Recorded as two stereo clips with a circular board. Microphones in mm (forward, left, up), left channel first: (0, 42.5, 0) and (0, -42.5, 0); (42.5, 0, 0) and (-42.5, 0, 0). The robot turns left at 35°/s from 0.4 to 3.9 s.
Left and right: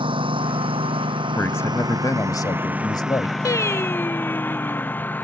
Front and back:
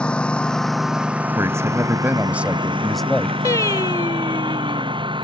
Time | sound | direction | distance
0.0 | a lawn mower | 80° right | ?
1.4 | a man speaking | 145° left | ?
3.5 | singing | 50° left | ?